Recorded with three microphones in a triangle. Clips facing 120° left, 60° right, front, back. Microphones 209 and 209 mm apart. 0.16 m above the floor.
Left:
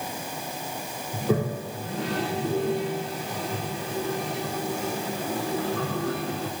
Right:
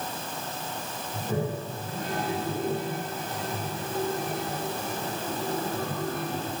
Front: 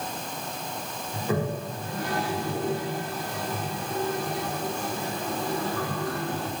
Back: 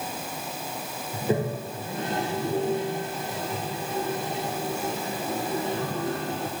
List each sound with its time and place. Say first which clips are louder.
1.1 s a toilet flushing: left 5 dB, back 2 dB; 115° left, 8 m